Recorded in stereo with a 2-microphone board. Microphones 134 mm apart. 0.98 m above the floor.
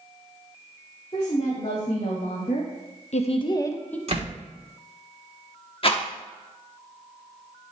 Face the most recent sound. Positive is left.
turn(degrees=45)  # may be behind; listen again after turning